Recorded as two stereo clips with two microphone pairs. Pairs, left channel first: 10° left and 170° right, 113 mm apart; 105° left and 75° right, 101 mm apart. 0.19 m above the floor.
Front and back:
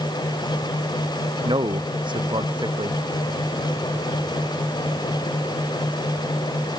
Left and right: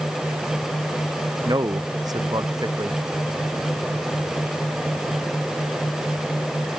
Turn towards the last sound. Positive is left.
turn(degrees=-130)